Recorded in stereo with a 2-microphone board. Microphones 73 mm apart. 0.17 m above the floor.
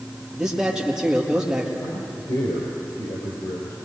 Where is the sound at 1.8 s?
70° left (ahead or behind), 3.5 m.